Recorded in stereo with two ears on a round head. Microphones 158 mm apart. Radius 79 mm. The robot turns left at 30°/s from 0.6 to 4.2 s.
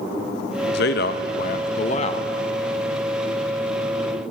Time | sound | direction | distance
0.7 | a man speaking | 80° left | 0.6 m